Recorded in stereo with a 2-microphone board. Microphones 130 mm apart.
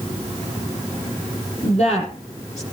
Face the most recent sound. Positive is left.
turn(degrees=55)  # may be behind; listen again after turning